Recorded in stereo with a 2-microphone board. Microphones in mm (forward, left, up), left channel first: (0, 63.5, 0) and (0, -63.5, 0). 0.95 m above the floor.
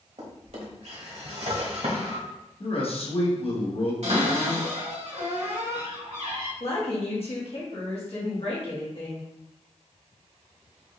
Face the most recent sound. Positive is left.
turn(degrees=50)  # may be behind; listen again after turning